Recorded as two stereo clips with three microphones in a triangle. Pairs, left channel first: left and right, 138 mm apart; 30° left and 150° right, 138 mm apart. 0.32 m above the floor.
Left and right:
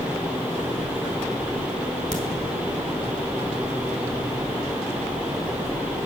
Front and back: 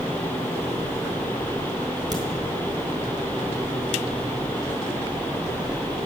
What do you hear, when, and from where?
2.1 s a crack: 95° right, 3.5 m